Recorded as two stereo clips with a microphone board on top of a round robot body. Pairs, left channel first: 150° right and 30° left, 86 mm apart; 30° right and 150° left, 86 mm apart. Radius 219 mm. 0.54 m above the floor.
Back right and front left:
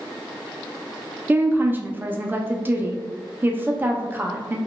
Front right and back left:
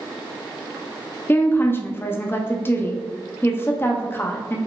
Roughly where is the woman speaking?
Ahead.